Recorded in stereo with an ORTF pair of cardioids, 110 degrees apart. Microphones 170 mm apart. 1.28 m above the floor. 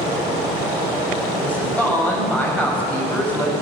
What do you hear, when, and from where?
1.4 s a woman speaking: 10° left, 6 m